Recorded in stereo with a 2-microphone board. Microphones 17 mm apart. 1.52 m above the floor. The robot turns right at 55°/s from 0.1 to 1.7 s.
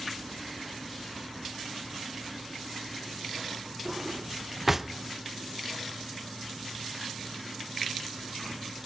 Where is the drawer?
15° right (ahead or behind), 0.7 m.